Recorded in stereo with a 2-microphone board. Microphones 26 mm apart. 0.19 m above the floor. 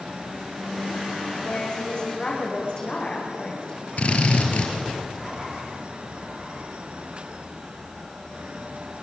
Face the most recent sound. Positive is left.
turn(degrees=55)  # may be behind; listen again after turning